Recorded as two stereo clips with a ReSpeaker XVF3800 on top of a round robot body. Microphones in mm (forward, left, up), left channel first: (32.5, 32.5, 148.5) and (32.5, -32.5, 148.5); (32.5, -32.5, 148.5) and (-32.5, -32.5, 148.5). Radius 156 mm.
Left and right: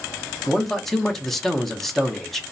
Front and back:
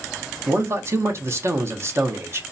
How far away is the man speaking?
About 0.8 m.